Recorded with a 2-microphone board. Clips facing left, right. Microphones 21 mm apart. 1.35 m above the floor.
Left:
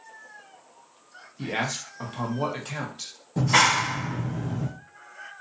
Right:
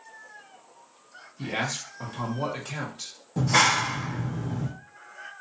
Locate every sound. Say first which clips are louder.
1.4 s a man speaking: left 1 dB; 15° left (ahead or behind), 0.9 m
3.4 s a clap: left 1 dB; 45° left (ahead or behind), 0.8 m